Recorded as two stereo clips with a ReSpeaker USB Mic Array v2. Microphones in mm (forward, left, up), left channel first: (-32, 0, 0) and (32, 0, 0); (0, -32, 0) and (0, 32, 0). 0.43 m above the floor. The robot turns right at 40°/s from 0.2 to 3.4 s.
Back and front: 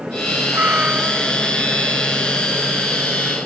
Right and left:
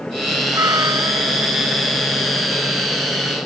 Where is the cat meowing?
55° left; by 1.5 s 95° left.